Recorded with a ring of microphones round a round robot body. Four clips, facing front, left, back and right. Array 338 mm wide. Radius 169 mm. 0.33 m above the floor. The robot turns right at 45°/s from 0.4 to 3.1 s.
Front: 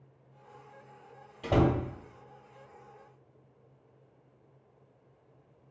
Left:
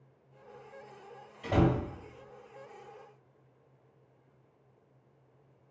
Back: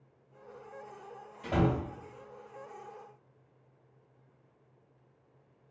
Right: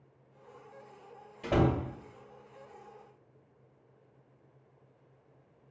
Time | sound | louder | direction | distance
1.4 | a door slam | even, front 3 dB | 30° right | 1.1 m